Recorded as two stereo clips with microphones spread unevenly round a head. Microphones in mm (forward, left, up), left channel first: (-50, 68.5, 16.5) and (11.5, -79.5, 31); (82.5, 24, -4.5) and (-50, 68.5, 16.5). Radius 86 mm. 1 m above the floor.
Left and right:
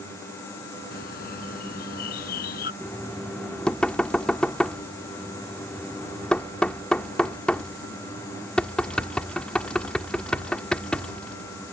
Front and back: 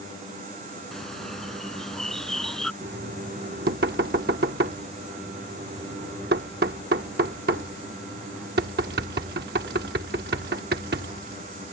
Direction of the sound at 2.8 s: 160° right.